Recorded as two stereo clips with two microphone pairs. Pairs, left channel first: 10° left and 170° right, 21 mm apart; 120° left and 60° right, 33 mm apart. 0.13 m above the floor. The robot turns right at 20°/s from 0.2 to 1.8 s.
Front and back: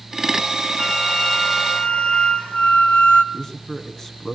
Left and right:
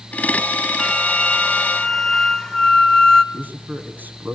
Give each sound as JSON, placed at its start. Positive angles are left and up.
{"t": 0.8, "sound": "a flute", "azimuth_deg": 20, "distance_m": 1.8}
{"t": 3.3, "sound": "a man speaking", "azimuth_deg": -55, "distance_m": 5.5}